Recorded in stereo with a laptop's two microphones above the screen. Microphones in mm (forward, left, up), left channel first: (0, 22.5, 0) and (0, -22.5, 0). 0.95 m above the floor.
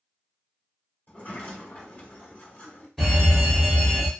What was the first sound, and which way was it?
A sliding door, 45° left (ahead or behind).